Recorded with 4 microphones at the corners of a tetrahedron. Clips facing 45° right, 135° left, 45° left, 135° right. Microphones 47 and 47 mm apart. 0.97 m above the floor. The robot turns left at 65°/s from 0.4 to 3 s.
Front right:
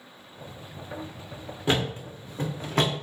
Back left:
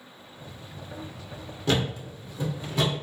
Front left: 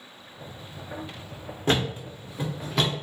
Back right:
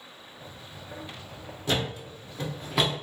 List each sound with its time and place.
1.7 s a thud: 20° left, 0.8 m; by 3.0 s 60° right, 0.8 m